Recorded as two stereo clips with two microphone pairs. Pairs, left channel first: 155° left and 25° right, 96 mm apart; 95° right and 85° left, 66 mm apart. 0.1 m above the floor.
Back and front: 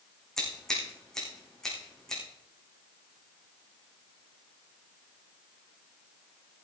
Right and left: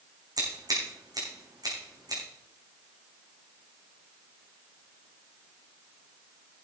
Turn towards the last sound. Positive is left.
turn(degrees=70)